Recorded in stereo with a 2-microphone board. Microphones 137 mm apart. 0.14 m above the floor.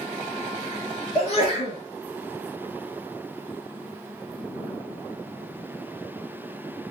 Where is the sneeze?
50° left (ahead or behind), 1.7 m.